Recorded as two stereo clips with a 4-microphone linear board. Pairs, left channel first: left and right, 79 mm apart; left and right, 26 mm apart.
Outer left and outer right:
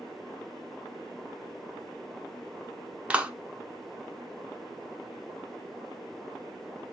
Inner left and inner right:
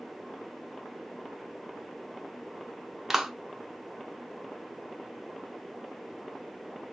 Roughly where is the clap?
Centre.